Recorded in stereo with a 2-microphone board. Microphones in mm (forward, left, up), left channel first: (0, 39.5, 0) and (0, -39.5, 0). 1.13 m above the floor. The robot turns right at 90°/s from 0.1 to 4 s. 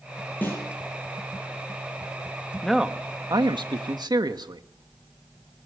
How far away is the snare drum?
About 8 m.